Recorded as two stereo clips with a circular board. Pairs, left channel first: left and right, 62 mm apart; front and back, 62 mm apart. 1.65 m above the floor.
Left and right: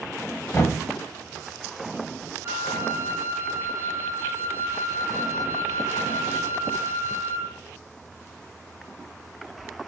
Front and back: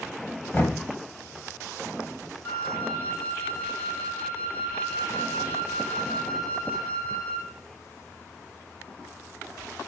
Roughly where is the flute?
Ahead right.